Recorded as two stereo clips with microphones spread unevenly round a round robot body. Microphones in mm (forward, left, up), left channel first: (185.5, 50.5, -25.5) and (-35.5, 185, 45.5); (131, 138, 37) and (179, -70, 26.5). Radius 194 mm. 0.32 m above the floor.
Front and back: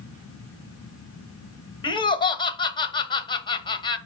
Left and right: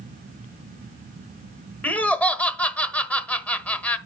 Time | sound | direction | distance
1.8 | laughter | 20° left | 1.2 m